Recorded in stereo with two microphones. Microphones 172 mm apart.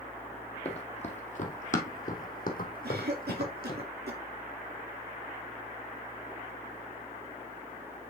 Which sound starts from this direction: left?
Running footsteps, at 0.7 s.